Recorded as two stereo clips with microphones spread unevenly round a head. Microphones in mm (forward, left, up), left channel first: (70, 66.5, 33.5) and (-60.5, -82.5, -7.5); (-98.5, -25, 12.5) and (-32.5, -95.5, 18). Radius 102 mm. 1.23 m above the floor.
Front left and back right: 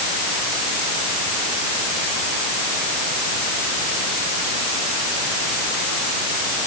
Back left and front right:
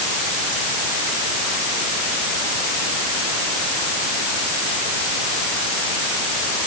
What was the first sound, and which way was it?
Only background noise.